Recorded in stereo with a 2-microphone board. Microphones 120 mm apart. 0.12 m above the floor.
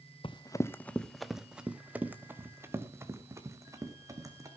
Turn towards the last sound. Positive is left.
turn(degrees=-25)  # may be behind; listen again after turning